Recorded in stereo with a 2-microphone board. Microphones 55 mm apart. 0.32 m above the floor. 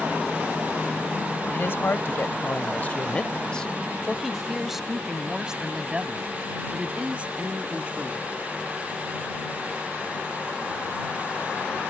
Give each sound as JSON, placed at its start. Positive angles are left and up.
{"t": 1.5, "sound": "a woman speaking", "side_deg": 45}